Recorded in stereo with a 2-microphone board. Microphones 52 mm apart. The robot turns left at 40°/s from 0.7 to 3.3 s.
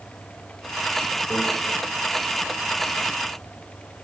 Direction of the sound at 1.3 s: 35° left (ahead or behind).